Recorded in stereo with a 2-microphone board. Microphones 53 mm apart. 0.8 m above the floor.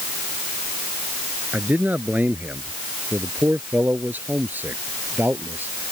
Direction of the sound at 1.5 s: 30° right (ahead or behind).